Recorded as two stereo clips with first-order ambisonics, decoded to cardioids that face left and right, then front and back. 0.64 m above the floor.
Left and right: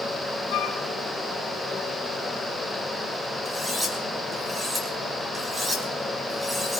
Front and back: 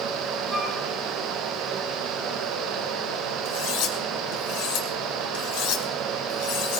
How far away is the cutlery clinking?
About 4 m.